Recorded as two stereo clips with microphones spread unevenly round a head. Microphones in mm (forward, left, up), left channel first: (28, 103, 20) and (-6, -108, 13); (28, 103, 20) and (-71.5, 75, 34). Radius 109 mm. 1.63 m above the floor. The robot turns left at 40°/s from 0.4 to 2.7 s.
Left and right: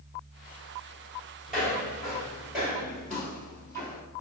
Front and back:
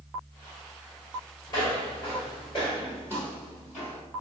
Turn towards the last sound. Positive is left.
turn(degrees=10)